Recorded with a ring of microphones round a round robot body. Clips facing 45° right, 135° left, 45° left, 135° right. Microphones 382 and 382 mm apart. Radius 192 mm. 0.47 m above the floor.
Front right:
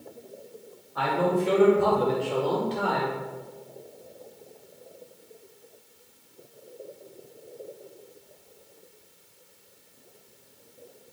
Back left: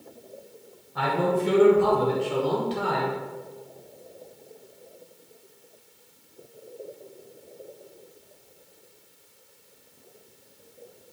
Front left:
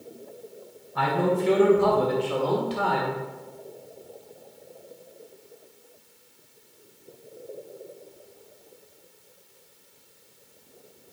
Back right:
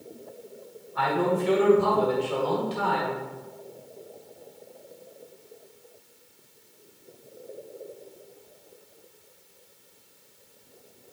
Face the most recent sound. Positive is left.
turn(degrees=60)